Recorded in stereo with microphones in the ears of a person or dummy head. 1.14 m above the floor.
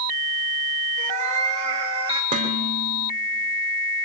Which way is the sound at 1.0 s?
45° right (ahead or behind).